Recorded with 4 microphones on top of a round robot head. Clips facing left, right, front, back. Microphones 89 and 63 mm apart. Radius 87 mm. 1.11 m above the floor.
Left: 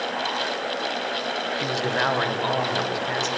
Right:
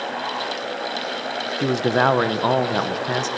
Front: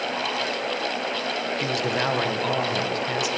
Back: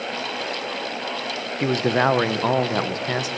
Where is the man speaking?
130° right, 0.9 m.